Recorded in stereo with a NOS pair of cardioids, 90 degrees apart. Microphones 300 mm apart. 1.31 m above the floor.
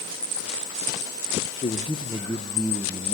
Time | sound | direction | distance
1.6 | a man speaking | 25° left | 0.8 m